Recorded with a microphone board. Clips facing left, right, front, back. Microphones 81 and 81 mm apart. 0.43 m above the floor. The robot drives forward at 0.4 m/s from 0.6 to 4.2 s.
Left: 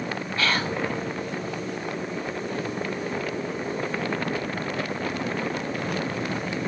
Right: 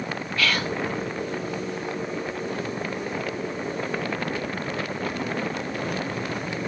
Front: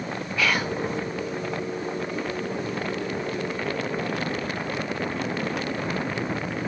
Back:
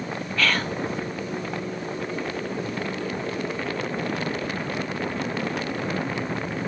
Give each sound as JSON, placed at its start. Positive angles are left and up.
{"t": 0.4, "sound": "whispering", "azimuth_deg": 70, "distance_m": 0.9}